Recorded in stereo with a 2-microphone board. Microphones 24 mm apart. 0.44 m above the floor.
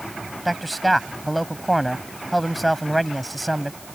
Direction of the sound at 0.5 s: Centre (ahead or behind).